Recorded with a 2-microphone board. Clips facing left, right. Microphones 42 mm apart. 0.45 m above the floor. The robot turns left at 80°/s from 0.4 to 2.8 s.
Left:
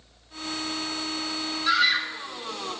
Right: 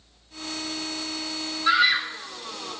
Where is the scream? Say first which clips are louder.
Right 2 dB; 20° right (ahead or behind), 0.7 m; by 2.7 s 10° left (ahead or behind), 0.7 m.